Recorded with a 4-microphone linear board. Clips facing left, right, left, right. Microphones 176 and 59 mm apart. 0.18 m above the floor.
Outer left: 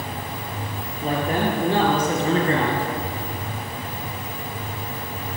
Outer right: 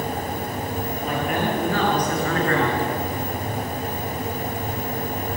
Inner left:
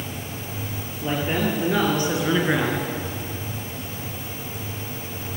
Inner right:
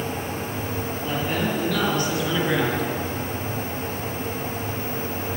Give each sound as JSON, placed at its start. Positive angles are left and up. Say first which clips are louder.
{"t": 1.0, "sound": "a man speaking", "louder": "outer left 3 dB, inner left 3 dB", "side_deg": 35, "distance_m": 4.0}